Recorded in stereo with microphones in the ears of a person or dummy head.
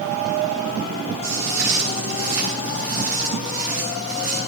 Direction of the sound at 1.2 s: 15° right (ahead or behind).